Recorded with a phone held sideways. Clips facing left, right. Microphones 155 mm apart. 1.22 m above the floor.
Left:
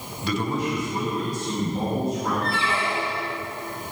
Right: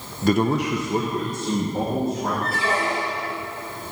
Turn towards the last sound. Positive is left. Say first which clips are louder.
# right 2 dB
turn(degrees=-45)  # may be behind; listen again after turning